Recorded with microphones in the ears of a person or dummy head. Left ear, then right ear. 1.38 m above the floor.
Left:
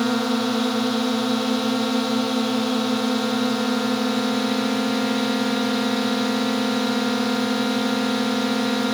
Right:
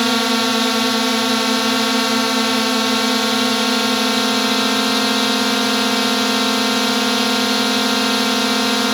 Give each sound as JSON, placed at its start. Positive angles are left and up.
{"t": 0.0, "sound": "a drone", "side_deg": -35}